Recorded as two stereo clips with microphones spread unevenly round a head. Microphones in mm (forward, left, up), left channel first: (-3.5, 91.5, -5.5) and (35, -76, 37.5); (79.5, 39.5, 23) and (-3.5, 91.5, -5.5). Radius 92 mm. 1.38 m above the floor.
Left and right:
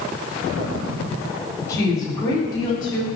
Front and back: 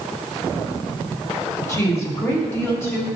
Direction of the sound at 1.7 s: 30° left.